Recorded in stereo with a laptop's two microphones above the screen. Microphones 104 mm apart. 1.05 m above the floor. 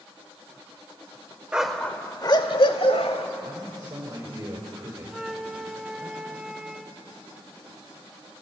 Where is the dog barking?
10° right (ahead or behind), 1.0 m; by 3.2 s 70° left (ahead or behind), 1.8 m.